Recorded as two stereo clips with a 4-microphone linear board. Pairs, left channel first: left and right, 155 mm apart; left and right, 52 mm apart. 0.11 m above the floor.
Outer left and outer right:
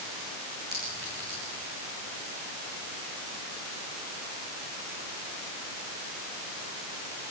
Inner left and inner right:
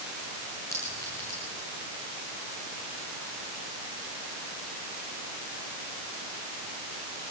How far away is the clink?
About 6 m.